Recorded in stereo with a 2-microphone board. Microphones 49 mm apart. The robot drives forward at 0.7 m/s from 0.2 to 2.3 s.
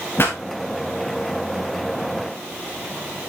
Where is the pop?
55° left (ahead or behind), 4 m.